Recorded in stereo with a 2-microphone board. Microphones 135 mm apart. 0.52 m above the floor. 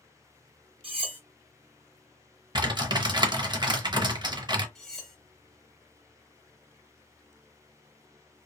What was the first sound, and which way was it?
Cutlery clinking, 45° right (ahead or behind).